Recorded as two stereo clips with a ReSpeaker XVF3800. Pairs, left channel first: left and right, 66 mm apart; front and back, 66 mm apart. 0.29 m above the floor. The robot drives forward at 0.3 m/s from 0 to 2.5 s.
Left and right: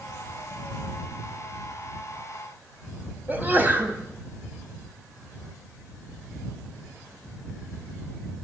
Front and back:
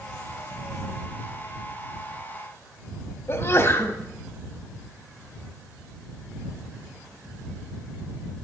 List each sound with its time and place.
3.3 s a sneeze: 40° right, 1.5 m